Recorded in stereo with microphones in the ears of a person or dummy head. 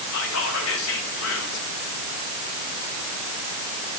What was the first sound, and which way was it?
Whispering, 70° left (ahead or behind).